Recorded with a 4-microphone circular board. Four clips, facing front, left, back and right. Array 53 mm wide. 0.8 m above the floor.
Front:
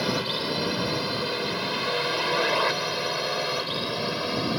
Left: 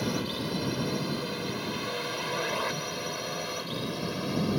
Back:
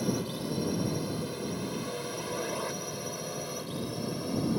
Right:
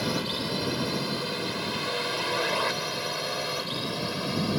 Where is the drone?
15° right.